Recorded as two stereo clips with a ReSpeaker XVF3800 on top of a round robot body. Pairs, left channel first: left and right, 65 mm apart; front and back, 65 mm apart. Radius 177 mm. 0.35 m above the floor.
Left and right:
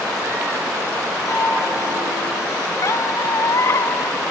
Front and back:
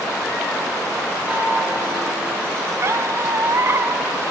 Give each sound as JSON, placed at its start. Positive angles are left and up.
{"t": 1.3, "sound": "a chime", "azimuth_deg": 105, "distance_m": 7.5}
{"t": 2.8, "sound": "a squeak", "azimuth_deg": 130, "distance_m": 0.6}